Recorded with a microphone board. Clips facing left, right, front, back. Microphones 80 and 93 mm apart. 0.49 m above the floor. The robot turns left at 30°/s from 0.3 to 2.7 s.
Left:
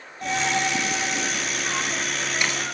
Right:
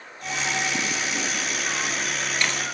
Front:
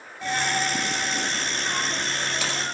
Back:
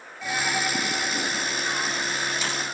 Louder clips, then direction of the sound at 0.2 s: Left 4 dB, front 1 dB; 75° left.